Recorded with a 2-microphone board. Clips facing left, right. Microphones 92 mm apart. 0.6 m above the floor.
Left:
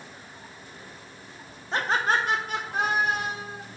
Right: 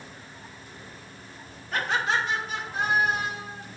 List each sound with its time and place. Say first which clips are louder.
1.7 s laughter: left 2 dB; 25° left (ahead or behind), 0.6 m; by 3.6 s 75° left (ahead or behind), 2 m